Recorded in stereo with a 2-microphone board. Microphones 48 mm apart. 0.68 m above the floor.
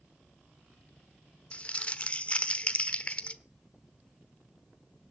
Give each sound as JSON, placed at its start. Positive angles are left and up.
{"t": 1.5, "sound": "crumpling", "side_deg": 25, "distance_m": 0.9}